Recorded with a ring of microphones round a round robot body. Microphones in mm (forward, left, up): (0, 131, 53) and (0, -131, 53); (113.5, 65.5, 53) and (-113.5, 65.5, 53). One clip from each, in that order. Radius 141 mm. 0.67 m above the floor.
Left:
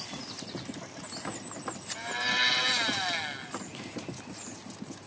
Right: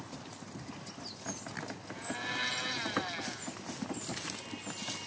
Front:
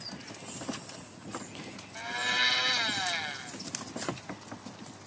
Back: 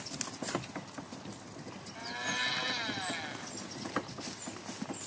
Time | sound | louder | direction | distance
1.9 | a blender | left 8 dB, front 6 dB | 40° left | ?